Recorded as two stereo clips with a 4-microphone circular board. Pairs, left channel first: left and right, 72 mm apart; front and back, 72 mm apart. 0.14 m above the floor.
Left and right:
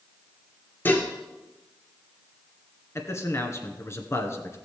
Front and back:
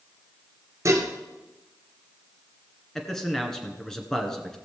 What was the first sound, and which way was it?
Dishes clattering, 145° left.